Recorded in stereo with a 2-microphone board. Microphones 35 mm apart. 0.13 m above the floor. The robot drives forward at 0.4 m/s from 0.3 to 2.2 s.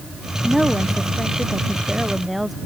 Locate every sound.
0.4 s a woman speaking: 5° right (ahead or behind)